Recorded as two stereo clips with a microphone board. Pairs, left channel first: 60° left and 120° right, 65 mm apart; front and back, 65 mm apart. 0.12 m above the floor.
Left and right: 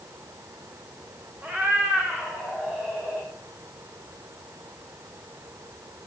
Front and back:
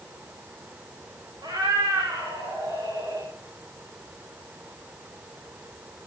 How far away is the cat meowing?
About 5.5 m.